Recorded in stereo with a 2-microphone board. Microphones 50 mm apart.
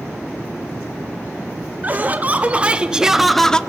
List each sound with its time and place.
1.8 s laughter: 30° right (ahead or behind), 1.8 m; by 3.6 s 15° left (ahead or behind), 0.7 m